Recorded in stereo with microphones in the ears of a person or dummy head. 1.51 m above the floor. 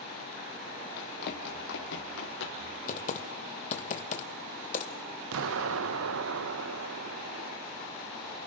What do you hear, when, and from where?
1.0 s running footsteps: 55° left (ahead or behind), 3 m; by 2.7 s 75° left (ahead or behind), 5 m
2.9 s typing on a keyboard: 40° left (ahead or behind), 1.8 m
5.3 s an explosion: 75° right (ahead or behind), 1.2 m